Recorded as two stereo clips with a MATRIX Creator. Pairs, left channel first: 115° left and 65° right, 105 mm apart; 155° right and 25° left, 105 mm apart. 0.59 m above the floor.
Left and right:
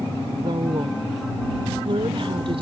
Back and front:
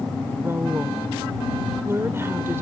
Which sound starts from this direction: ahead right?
A woman speaking, at 0.4 s.